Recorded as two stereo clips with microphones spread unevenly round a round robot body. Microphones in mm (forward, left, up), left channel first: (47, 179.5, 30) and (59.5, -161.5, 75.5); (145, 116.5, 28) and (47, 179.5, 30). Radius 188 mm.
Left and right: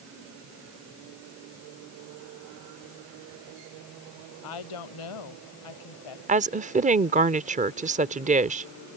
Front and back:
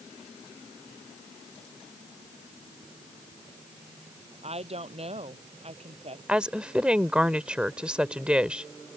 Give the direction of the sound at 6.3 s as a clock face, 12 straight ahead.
5 o'clock.